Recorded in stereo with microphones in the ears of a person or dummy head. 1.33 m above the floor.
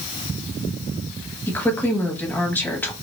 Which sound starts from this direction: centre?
A woman speaking, at 1.5 s.